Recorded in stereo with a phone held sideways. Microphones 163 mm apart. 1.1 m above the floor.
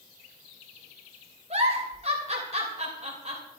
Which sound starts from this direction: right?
A giggle, at 1.5 s.